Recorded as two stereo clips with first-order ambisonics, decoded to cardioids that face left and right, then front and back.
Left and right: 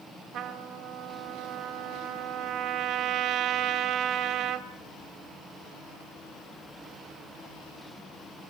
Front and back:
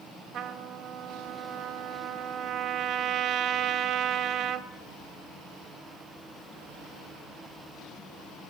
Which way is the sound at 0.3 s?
130° right.